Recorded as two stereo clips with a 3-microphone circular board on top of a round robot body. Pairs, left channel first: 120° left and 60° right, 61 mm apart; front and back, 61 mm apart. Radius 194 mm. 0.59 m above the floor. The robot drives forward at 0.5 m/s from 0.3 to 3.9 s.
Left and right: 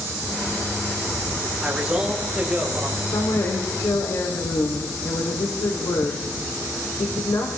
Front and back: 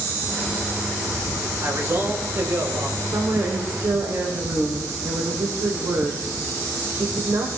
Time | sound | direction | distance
1.6 | a man speaking | 130° right | 4 m
3.0 | a woman speaking | 145° left | 3 m